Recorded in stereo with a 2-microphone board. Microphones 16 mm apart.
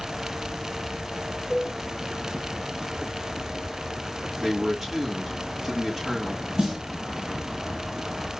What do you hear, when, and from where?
1.5 s a cowbell: 40° right (ahead or behind), 2 m
4.4 s a man speaking: 20° right (ahead or behind), 3 m
6.6 s a snare drum: 60° right (ahead or behind), 2.0 m